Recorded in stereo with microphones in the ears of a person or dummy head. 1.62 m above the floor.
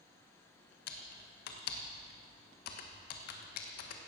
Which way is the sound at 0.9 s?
60° left (ahead or behind).